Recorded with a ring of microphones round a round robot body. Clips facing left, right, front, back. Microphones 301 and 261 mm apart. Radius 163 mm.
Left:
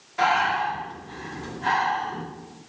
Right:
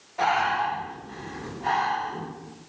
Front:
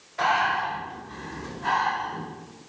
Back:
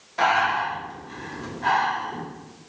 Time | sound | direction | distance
0.2 | breathing | 150° left | 1.3 m